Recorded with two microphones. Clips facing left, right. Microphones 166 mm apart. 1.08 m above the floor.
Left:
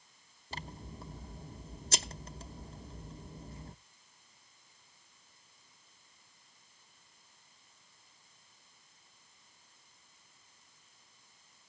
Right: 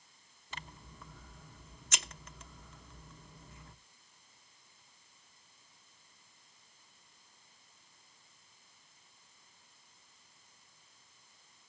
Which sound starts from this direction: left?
Scissors, at 0.5 s.